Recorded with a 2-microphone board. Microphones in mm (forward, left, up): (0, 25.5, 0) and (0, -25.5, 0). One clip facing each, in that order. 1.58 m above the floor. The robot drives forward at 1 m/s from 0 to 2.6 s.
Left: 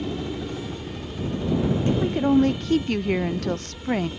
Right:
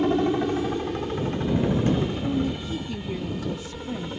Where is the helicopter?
50° right (ahead or behind); by 4.2 s 35° right (ahead or behind).